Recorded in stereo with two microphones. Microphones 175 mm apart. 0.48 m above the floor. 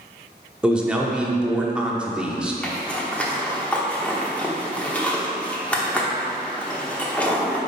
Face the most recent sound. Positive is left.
turn(degrees=10)  # may be behind; listen again after turning